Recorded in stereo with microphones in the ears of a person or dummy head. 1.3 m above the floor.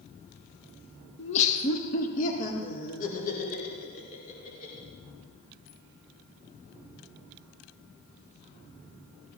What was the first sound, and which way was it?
Laughter, 35° left (ahead or behind).